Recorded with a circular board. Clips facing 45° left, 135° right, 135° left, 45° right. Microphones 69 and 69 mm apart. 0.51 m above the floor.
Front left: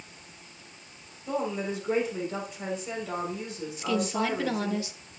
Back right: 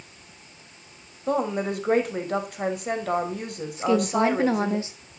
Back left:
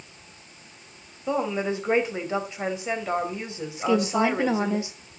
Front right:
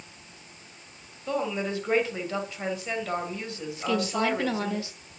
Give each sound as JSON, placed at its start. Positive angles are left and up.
{"t": 1.3, "sound": "a woman speaking", "azimuth_deg": -155, "distance_m": 3.0}
{"t": 3.8, "sound": "a woman speaking", "azimuth_deg": -175, "distance_m": 0.9}